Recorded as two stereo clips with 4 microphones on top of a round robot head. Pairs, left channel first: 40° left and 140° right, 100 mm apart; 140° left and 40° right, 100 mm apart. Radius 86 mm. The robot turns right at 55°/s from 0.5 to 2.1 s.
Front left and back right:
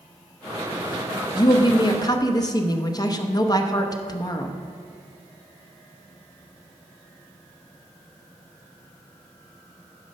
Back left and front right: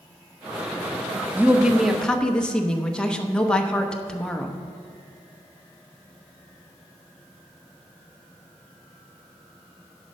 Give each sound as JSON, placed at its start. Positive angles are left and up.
{"t": 1.4, "sound": "a woman speaking", "azimuth_deg": 20, "distance_m": 0.9}